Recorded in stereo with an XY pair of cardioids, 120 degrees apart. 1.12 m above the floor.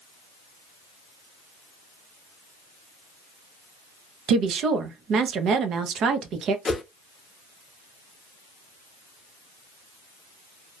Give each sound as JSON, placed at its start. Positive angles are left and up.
{"t": 4.3, "sound": "a woman speaking", "azimuth_deg": -60, "distance_m": 0.6}
{"t": 6.7, "sound": "a whoosh", "azimuth_deg": 25, "distance_m": 0.5}